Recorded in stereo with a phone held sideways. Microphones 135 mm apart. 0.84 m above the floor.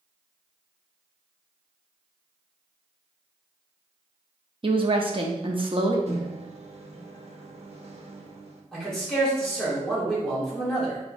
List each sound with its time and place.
4.6 s a woman speaking: 40° right (ahead or behind), 0.6 m
6.1 s a microwave: 50° right (ahead or behind), 0.6 m
8.7 s a man speaking: 5° left (ahead or behind), 1.8 m